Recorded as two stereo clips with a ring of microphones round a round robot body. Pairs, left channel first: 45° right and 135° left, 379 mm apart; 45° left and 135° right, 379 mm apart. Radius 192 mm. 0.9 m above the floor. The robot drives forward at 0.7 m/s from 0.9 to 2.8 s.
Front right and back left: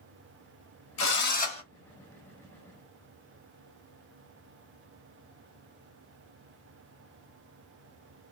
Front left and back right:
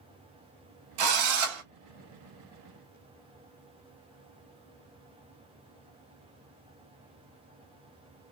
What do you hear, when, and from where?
1.0 s a drill: 100° right, 1.1 m; by 1.6 s 120° right, 1.3 m